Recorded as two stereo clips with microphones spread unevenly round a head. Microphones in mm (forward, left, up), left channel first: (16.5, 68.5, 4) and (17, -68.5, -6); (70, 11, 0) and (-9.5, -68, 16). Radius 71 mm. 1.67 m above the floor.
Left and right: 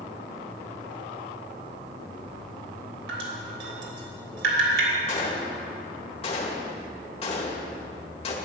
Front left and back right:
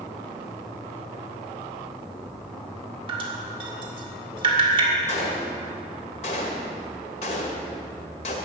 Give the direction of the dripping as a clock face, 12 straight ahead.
3 o'clock.